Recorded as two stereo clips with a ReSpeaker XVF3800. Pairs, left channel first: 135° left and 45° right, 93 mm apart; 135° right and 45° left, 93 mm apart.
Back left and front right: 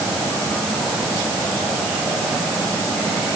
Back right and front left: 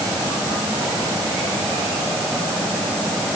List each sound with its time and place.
Only background noise.